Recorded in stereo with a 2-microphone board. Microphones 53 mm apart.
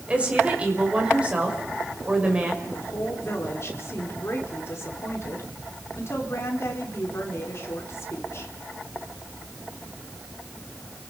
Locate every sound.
0.1 s a woman speaking: 20° right (ahead or behind), 5.5 m
2.6 s a woman speaking: 50° left (ahead or behind), 5 m